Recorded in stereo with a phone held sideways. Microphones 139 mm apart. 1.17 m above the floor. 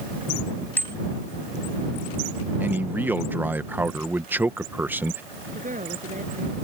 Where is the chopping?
No chopping in this recording.